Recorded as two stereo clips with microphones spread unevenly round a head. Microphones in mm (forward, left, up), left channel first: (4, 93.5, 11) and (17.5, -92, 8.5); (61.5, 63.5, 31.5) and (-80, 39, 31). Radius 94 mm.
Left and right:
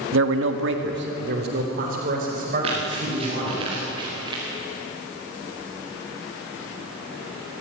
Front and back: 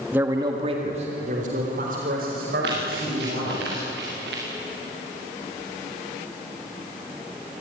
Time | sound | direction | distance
0.1 | a man speaking | 90° right | 1.5 m
2.6 | running footsteps | 145° right | 8.5 m